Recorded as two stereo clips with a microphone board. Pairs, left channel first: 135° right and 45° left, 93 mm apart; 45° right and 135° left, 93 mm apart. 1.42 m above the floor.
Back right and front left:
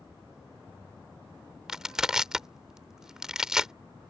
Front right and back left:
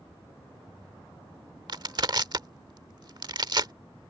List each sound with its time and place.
1.7 s crushing: 125° left